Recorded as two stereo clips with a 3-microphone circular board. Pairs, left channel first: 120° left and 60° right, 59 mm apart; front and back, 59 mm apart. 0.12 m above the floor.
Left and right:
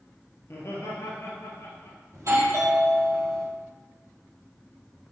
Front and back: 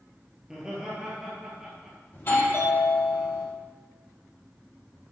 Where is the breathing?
I don't hear breathing.